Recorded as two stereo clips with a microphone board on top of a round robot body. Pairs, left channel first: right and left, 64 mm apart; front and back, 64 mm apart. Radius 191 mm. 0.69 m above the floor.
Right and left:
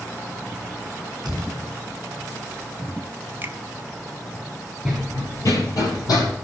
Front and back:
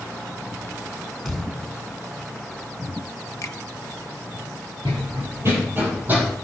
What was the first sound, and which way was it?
A thud, 80° left.